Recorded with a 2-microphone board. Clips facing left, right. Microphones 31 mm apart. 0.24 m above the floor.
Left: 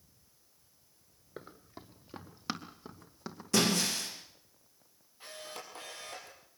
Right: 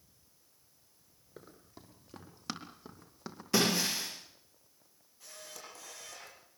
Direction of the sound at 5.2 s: 35° left (ahead or behind).